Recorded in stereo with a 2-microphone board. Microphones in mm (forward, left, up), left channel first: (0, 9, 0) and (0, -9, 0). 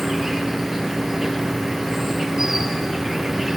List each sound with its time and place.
0.0 s an insect: 25° right (ahead or behind), 3 m